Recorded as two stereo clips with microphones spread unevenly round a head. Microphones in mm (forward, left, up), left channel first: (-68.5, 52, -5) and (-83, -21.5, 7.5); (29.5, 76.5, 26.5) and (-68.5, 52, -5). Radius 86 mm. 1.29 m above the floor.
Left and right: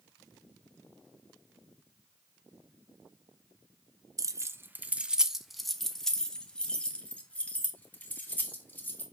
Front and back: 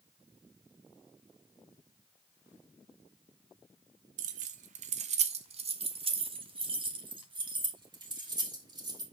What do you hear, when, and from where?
4.2 s keys jangling: 135° right, 0.7 m; by 9.0 s 145° left, 3.5 m